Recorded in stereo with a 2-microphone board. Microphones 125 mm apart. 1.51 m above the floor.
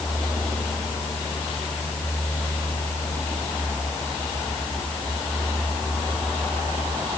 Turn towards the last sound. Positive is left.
No sound to turn to.